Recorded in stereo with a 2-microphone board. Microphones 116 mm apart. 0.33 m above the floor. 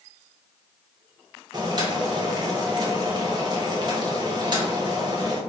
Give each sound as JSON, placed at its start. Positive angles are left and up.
{"t": 1.5, "sound": "boiling", "side_deg": -40, "distance_m": 0.7}